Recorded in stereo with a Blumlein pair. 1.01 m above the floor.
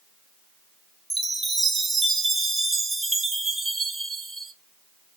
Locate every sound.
1.1 s a chime: 10° right, 0.6 m